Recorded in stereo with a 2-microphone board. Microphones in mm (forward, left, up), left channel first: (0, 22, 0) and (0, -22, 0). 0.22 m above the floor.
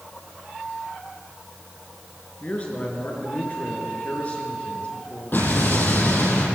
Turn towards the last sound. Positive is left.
turn(degrees=45)  # may be behind; listen again after turning